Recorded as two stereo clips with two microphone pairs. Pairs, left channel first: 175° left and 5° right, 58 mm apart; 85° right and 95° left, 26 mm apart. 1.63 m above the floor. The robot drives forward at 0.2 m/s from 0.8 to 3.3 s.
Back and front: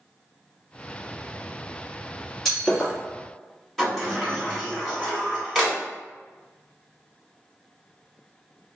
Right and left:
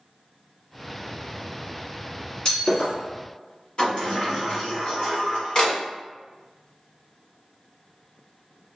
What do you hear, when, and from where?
2.5 s breaking glass: 100° right, 1.5 m; by 2.9 s 105° right, 1.5 m
3.8 s a sliding door: 100° right, 1.0 m